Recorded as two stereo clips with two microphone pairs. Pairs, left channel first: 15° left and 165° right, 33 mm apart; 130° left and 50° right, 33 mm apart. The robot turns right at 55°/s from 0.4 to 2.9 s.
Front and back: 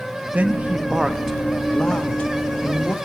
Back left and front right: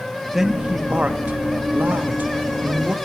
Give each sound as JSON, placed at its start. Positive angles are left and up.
{"t": 0.3, "sound": "a man speaking", "azimuth_deg": -130, "distance_m": 1.1}